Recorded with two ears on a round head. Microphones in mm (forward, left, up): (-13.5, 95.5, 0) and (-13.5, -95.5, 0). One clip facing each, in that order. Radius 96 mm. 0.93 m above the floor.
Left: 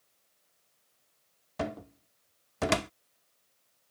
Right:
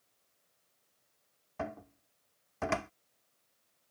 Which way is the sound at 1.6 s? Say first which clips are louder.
Left 5 dB; 45° left (ahead or behind).